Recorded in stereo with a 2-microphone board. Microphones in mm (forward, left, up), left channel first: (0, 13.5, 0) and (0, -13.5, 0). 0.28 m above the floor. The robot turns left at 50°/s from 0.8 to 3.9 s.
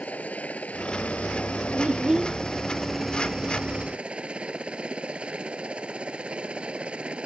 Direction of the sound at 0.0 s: 110° left.